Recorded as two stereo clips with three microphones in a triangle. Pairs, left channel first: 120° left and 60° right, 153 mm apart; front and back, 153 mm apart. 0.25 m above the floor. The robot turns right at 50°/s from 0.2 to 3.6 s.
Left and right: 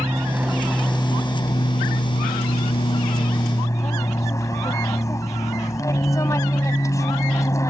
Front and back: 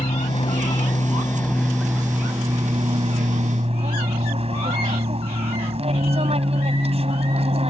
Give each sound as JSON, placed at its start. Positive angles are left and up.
{"t": 0.0, "sound": "an aircraft", "azimuth_deg": 10}